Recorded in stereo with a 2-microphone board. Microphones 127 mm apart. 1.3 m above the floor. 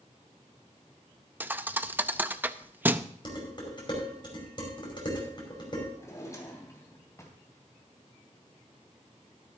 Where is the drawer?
25° left (ahead or behind), 3.5 m.